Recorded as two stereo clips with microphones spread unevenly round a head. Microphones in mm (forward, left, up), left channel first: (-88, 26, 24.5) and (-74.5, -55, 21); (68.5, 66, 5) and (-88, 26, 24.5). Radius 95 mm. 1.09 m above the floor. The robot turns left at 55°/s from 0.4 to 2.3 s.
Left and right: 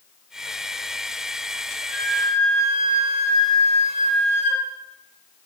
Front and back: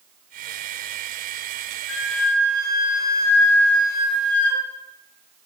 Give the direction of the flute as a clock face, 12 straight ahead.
12 o'clock.